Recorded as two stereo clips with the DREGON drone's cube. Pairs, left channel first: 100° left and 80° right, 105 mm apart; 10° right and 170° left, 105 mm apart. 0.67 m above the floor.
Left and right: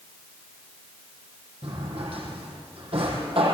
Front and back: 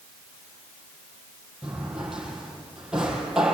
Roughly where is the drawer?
Right.